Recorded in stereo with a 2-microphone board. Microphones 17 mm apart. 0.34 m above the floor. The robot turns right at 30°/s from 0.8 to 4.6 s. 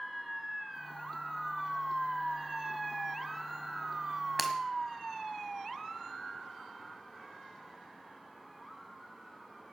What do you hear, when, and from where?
4.4 s breaking glass: 10° right (ahead or behind), 1.4 m; by 4.5 s 15° right (ahead or behind), 1.4 m